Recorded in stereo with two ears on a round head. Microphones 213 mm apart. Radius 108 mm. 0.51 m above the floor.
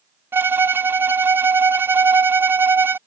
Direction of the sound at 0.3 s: 10° right (ahead or behind).